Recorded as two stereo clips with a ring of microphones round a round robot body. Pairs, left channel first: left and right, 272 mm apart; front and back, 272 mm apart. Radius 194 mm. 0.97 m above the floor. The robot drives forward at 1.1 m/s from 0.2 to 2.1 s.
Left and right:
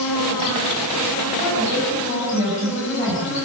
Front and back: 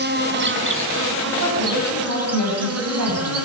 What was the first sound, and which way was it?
An insect, 130° left.